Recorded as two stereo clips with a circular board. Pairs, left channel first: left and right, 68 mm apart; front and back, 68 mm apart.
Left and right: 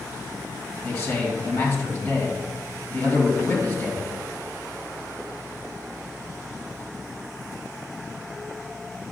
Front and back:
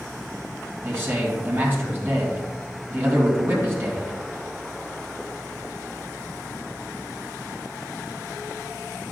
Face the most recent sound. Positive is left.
turn(degrees=135)